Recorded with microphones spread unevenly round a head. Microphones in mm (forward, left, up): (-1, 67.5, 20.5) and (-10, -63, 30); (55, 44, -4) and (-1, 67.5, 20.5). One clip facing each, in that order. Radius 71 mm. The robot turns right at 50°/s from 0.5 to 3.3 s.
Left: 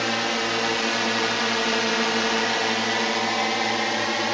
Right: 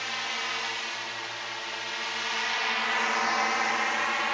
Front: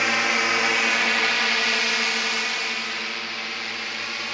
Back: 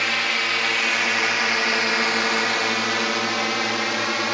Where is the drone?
60° left; by 4.3 s 135° left.